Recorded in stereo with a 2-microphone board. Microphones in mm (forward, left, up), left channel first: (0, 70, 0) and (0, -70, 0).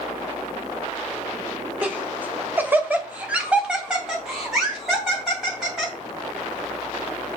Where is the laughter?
10° right (ahead or behind), 1.0 m; by 5.9 s centre (ahead or behind), 2 m.